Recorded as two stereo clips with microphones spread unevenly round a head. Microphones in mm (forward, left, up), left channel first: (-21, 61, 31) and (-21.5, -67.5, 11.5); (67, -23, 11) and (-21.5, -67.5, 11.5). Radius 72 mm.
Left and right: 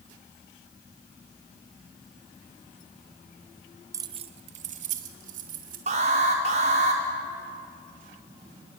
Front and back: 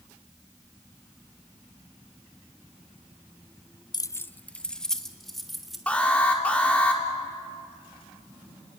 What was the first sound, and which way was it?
Keys jangling, 20° right.